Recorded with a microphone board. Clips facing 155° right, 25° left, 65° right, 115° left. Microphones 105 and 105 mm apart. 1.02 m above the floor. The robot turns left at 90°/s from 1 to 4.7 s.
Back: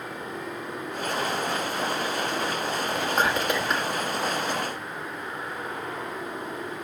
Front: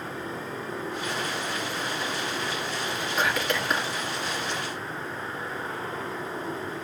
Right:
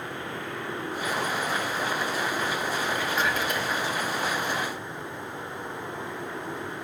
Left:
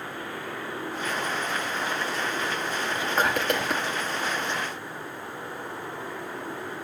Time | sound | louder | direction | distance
3.0 | whispering | back 2 dB, left 1 dB | straight behind | 1.8 m